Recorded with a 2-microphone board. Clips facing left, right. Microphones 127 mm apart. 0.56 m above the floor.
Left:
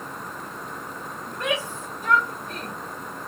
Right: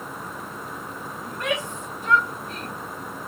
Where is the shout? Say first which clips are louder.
Even; 25° left (ahead or behind), 2.5 m; by 2.7 s 60° left (ahead or behind), 2.5 m.